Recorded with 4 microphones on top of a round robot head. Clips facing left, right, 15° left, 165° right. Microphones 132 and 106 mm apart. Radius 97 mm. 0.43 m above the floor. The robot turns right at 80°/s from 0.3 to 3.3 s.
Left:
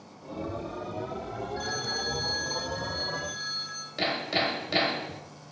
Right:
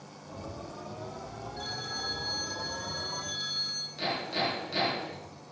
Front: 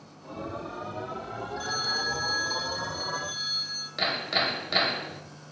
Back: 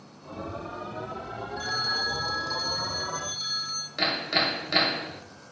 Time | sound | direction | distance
1.6 | a phone ringing | 75° left | 1.3 m
4.0 | hammering | 100° left | 1.6 m